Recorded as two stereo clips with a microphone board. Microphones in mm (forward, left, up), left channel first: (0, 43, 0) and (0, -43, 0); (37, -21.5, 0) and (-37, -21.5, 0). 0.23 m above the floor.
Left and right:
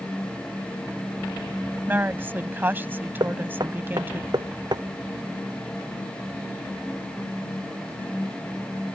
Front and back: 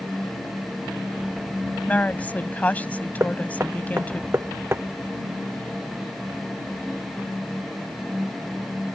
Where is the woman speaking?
50° right.